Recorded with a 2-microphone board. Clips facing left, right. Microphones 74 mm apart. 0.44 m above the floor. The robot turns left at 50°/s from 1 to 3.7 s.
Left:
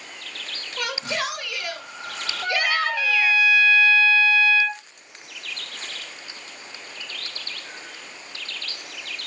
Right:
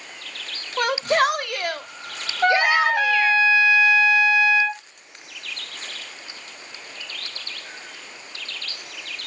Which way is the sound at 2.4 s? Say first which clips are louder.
Right 6 dB; 95° right.